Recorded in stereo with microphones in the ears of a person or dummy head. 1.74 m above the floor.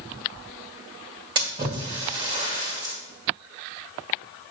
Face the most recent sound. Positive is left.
turn(degrees=-25)  # may be behind; listen again after turning